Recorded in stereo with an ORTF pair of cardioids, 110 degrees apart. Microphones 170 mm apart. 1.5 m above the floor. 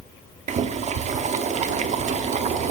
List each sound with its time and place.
0.5 s boiling: 45° right, 0.6 m